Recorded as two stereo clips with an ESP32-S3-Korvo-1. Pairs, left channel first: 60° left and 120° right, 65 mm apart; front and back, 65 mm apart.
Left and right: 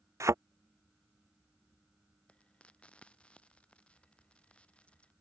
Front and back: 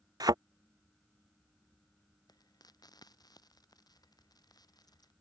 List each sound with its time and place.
0.2 s a thud: 165° right
2.3 s frying: 15° right